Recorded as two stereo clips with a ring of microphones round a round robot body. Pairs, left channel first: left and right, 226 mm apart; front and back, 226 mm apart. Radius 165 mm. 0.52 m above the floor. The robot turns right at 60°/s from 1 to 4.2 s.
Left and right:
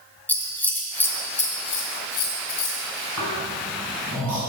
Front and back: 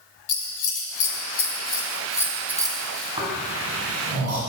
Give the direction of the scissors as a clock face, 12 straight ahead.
12 o'clock.